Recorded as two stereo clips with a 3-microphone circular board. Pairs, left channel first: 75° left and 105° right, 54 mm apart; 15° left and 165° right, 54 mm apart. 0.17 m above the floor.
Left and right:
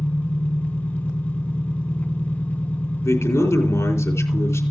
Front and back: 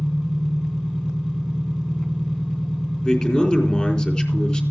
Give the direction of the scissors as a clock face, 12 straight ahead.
I don't hear scissors.